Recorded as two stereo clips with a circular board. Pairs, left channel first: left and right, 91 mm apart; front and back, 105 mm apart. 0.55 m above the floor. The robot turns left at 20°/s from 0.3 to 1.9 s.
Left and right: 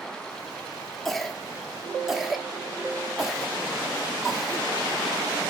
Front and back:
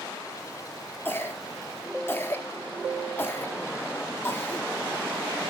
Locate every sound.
1.1 s a cough: 5° left, 0.9 m; by 5.5 s 10° right, 0.9 m